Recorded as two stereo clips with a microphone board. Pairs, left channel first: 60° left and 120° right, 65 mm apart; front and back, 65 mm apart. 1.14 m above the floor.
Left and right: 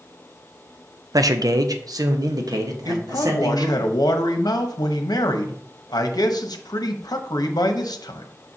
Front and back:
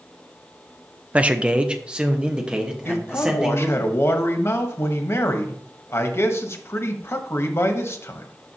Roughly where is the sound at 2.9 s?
Ahead left.